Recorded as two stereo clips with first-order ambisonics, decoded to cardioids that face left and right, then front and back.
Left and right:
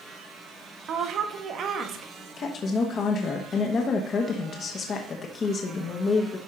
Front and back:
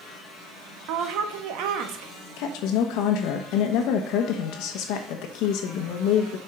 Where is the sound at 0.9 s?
145° right, 1.2 m.